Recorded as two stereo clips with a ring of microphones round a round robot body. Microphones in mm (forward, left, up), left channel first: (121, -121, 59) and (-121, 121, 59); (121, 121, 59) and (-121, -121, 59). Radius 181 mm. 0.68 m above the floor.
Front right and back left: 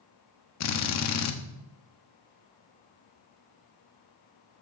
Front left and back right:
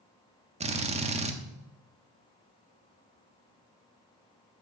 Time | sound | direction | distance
0.6 | a drill | 70° right | 1.3 m